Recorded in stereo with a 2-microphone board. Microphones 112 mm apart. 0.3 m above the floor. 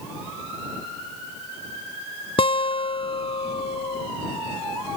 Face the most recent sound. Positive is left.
turn(degrees=55)  # may be behind; listen again after turning